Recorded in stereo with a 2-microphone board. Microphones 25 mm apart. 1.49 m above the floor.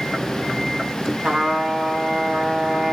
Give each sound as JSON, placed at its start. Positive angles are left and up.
{"t": 1.2, "sound": "a trumpet", "side_deg": -45, "distance_m": 1.1}